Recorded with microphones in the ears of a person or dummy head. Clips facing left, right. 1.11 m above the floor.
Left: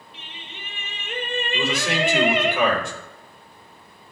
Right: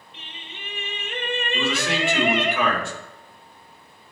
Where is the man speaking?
20° left (ahead or behind), 3 m.